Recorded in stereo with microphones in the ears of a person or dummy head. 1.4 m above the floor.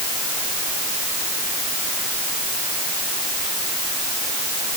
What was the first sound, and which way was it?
Only background noise.